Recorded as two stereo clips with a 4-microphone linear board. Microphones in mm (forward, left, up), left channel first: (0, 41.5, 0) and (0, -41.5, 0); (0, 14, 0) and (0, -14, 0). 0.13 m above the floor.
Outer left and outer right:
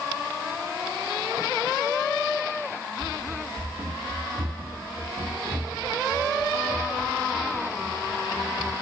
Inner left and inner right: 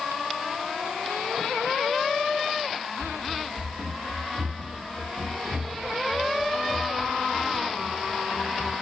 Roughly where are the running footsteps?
Right.